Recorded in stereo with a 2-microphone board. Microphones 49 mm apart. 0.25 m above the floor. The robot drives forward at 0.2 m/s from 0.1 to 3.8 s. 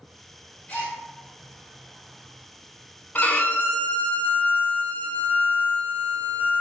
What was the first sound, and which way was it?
A gasp, 30° left (ahead or behind).